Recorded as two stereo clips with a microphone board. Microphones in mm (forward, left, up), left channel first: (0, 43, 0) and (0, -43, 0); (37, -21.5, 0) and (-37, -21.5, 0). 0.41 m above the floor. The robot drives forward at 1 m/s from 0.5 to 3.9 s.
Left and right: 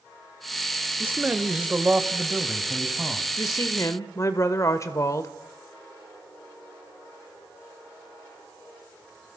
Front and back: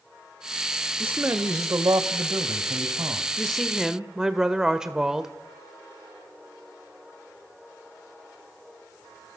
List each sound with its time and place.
1.0 s a man speaking: 135° right, 1.1 m; by 3.3 s 170° right, 3 m
3.4 s a woman speaking: 75° left, 1.5 m; by 5.3 s 105° left, 1.5 m